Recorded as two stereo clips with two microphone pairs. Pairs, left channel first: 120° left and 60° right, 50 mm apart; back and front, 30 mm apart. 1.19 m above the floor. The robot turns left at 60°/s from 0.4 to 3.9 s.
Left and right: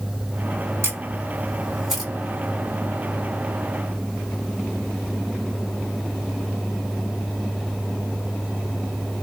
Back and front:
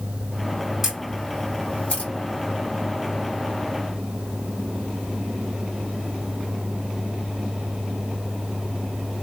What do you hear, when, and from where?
0.8 s a camera shutter: 80° right, 2.5 m; by 2.1 s 155° right, 2.5 m